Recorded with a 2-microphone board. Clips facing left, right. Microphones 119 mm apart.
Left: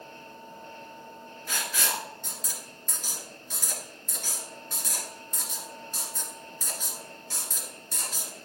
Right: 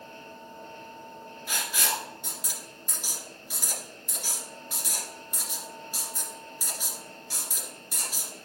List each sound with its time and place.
1.5 s writing: 10° right (ahead or behind), 2.0 m